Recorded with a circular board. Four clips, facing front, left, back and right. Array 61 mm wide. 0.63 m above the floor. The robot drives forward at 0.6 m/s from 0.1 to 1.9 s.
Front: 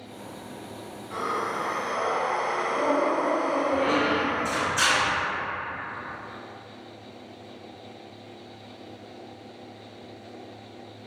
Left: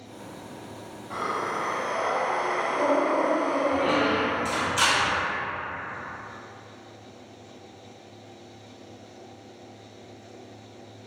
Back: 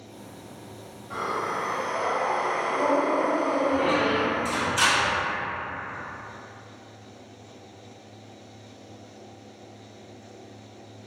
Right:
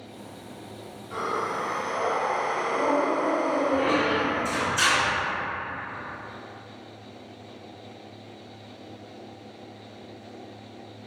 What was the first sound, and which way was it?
Breathing, 105° left.